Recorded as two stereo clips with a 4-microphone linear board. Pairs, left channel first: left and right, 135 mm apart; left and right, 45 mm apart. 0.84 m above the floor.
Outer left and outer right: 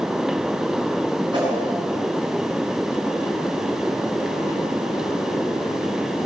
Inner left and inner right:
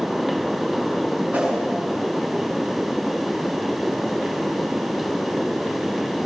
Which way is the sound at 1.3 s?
35° right (ahead or behind).